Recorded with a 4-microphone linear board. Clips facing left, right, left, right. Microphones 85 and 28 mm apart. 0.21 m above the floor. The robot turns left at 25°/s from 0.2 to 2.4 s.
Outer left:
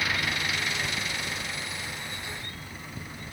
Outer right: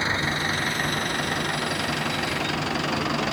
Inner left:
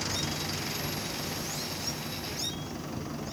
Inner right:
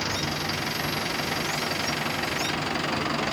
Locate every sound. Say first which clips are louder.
0.0 s an engine running: outer right 4 dB, inner right 5 dB; 30° right; by 3.3 s 85° right